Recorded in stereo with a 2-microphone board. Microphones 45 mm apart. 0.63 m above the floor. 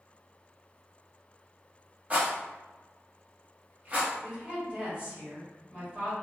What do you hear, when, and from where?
2.1 s a rattle: 30° right (ahead or behind), 0.8 m
4.2 s a woman speaking: 25° right (ahead or behind), 1.3 m